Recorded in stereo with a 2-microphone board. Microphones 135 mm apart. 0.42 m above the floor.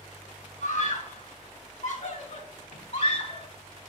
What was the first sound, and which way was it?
A scream, 65° left (ahead or behind).